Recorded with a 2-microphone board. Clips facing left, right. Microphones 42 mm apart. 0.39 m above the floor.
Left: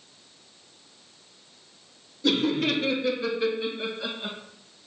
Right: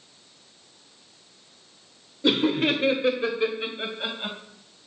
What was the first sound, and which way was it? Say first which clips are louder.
Laughter: right 2 dB; 30° right (ahead or behind).